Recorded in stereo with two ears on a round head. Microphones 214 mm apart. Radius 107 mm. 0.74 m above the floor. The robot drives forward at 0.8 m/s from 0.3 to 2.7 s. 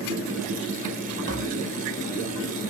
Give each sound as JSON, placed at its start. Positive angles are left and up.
{"t": 1.3, "sound": "tapping", "side_deg": -50, "distance_m": 2.5}